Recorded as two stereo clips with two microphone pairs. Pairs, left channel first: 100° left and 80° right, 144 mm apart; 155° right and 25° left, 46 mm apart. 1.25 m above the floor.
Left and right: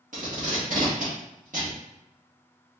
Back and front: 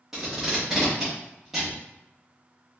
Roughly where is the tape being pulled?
Ahead right.